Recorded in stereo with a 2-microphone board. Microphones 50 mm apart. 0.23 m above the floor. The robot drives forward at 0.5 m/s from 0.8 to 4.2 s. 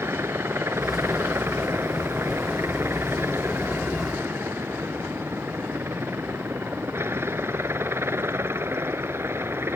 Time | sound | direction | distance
0.0 | a helicopter | 55° right (ahead or behind) | ?